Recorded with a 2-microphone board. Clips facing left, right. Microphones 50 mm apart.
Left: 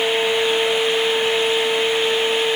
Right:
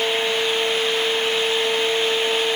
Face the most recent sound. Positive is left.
No sound to turn to.